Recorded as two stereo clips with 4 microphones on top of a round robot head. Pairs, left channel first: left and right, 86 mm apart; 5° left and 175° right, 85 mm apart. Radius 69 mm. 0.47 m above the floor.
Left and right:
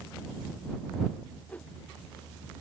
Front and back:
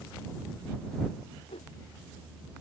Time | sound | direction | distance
1.5 | a whoosh | 15° left | ?